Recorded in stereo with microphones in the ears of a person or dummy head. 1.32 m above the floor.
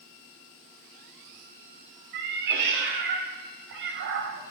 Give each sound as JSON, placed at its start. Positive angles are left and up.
{"t": 2.1, "sound": "a cat meowing", "side_deg": -60, "distance_m": 2.0}